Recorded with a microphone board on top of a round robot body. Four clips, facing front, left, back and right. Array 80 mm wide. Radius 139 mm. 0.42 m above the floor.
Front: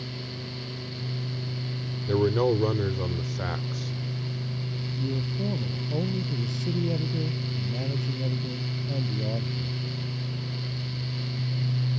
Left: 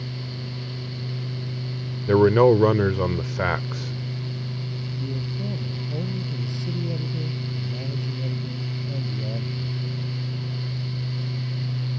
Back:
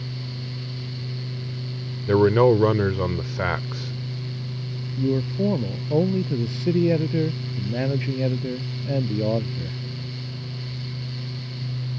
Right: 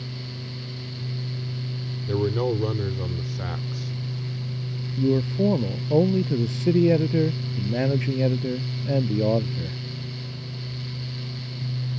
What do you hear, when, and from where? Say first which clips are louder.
2.1 s a man speaking: left 9 dB, back 7 dB; 120° left
5.0 s a man speaking: right 13 dB, back 9 dB; 120° right